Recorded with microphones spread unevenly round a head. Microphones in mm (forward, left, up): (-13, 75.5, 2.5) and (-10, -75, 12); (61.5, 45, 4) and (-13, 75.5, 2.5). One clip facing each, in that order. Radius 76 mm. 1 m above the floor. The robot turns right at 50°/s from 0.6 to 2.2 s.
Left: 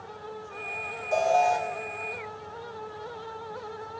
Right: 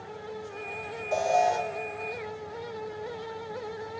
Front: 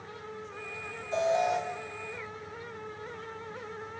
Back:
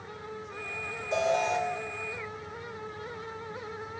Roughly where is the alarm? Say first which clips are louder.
Left 2 dB, even; behind.